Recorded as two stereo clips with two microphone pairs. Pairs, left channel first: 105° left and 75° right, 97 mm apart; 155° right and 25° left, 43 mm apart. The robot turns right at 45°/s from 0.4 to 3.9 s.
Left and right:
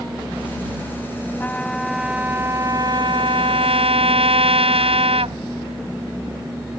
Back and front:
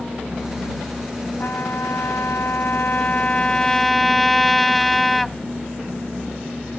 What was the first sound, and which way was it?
A trumpet, 175° left.